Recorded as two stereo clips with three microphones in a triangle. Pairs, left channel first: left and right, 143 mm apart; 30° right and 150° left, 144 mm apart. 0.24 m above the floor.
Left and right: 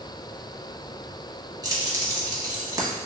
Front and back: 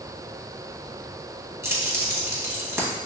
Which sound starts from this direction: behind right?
Keys jangling, at 1.6 s.